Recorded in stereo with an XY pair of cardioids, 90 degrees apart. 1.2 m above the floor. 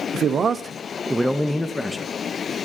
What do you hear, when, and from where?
0.1 s a man speaking: 65° right, 0.6 m; by 2.1 s 20° left, 1.0 m